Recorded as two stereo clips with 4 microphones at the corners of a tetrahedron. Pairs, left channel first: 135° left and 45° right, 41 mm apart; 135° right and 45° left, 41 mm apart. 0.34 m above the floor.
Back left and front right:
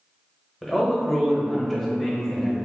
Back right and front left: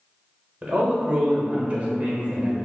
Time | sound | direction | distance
0.6 | a man speaking | 60° left | 1.0 m